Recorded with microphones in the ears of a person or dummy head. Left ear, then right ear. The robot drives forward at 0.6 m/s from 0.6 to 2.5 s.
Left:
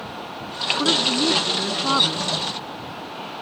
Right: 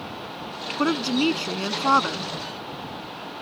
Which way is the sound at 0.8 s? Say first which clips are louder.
Left 2 dB; 90° right.